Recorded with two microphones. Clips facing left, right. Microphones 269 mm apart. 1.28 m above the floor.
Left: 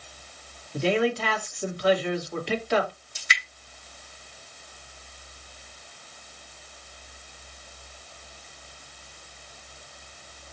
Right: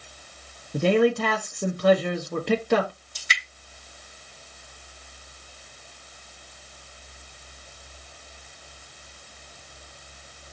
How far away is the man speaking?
About 1.1 m.